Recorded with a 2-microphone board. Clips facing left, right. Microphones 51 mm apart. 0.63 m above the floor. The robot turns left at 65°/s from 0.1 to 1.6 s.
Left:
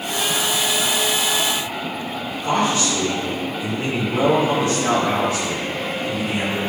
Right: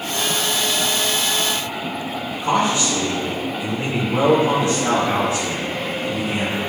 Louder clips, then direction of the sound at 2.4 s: Right 1 dB; 20° right (ahead or behind).